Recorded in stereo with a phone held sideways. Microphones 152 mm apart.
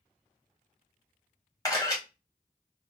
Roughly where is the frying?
I don't hear frying.